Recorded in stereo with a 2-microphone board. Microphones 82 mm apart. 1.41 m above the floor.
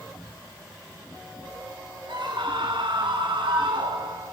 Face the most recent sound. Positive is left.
turn(degrees=-85)